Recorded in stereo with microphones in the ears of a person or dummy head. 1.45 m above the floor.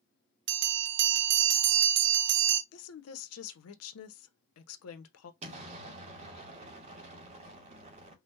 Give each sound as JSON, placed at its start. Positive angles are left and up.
{"t": 0.5, "sound": "a bell", "side_deg": -60, "distance_m": 0.8}
{"t": 2.7, "sound": "a woman speaking", "side_deg": 85, "distance_m": 1.0}
{"t": 5.4, "sound": "an explosion", "side_deg": -35, "distance_m": 2.0}